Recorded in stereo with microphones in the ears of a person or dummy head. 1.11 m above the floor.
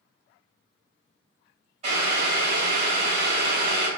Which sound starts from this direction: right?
Boiling, at 1.8 s.